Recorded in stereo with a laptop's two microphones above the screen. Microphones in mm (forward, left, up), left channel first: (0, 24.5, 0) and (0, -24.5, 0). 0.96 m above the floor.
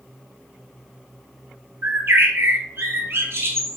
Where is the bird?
55° right (ahead or behind), 1.4 m.